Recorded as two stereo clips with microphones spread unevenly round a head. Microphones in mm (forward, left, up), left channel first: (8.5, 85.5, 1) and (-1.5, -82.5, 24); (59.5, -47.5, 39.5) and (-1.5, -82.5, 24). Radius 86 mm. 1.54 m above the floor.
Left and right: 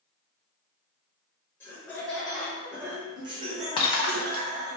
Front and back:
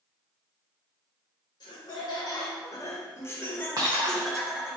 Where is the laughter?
10° left, 1.7 m; by 4.8 s 70° right, 1.3 m.